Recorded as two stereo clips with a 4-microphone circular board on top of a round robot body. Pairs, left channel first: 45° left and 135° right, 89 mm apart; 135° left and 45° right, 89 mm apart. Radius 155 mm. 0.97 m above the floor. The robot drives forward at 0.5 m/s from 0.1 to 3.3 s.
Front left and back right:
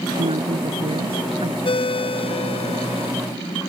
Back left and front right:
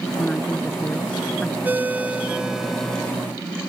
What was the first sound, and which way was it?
A woman speaking, 145° right.